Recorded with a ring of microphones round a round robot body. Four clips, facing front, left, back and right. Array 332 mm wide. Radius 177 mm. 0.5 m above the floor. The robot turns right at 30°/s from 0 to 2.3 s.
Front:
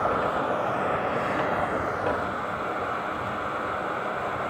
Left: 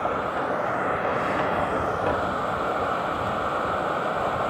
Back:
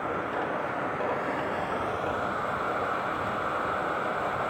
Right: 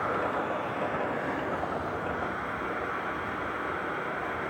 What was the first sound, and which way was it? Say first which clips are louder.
Running water: left 4 dB, front 5 dB; 20° left.